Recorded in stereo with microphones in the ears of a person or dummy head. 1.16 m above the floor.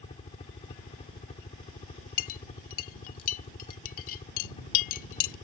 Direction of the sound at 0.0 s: 25° left (ahead or behind).